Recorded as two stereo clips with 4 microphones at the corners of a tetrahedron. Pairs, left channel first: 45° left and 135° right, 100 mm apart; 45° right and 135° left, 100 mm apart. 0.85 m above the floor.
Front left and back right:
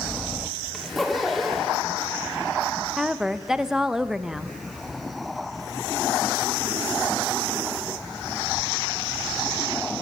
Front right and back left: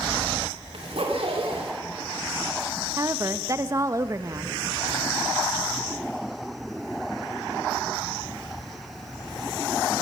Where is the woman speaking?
145° left, 0.5 m.